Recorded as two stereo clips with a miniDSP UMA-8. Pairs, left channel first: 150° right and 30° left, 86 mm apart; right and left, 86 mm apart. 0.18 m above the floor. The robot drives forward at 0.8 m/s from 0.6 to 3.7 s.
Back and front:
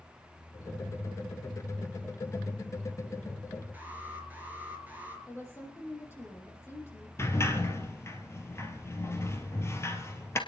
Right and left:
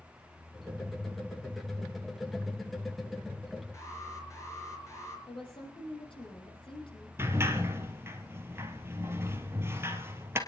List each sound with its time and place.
3.7 s an alarm: 40° right, 4.5 m
5.3 s a woman speaking: 90° right, 6 m
7.2 s a sliding door: 150° left, 2 m